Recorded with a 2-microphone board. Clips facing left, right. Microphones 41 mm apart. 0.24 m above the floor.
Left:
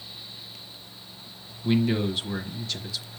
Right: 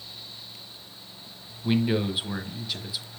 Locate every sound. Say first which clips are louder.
1.6 s a man speaking: left 1 dB; 10° right (ahead or behind), 1.2 m